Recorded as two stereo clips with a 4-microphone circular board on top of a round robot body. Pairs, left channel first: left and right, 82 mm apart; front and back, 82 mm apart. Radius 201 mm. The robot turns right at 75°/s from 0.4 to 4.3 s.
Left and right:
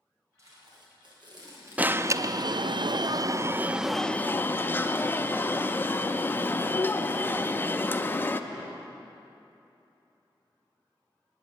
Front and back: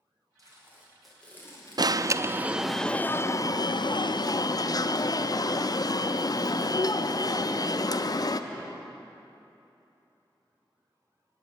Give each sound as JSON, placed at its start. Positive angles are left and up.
{"t": 0.4, "sound": "tape being pulled", "azimuth_deg": -140, "distance_m": 3.0}
{"t": 1.8, "sound": "an alarm", "azimuth_deg": -160, "distance_m": 0.6}